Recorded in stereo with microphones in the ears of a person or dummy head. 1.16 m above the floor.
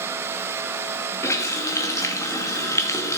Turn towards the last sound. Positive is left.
turn(degrees=15)  # may be behind; listen again after turning